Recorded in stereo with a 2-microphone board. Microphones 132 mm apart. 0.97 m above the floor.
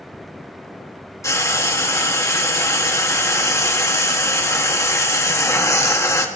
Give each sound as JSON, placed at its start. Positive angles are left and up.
{"t": 1.2, "sound": "frying", "side_deg": 20, "distance_m": 1.6}